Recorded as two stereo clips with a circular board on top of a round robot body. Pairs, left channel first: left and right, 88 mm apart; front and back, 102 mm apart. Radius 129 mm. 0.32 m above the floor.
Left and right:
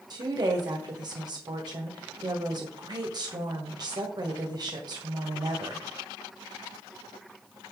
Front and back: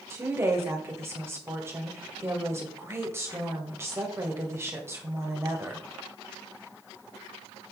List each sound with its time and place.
0.1 s a woman speaking: 120° right, 2.0 m